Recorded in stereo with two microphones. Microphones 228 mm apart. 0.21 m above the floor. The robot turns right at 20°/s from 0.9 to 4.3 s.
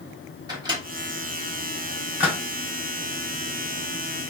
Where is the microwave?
20° right (ahead or behind), 1.2 m; by 2.4 s 5° right (ahead or behind), 1.2 m.